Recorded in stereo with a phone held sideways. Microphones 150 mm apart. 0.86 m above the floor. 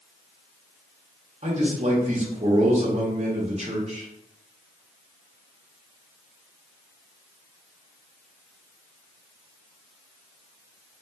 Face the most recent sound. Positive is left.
turn(degrees=-50)  # may be behind; listen again after turning